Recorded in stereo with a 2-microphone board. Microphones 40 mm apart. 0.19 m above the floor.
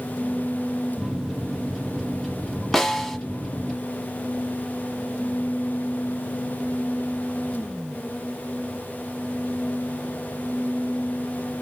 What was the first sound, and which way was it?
A microwave, 10° left (ahead or behind).